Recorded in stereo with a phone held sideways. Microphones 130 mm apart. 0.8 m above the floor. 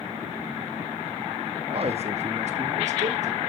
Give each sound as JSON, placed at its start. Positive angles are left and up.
{"t": 1.7, "sound": "a man speaking", "side_deg": -45, "distance_m": 1.6}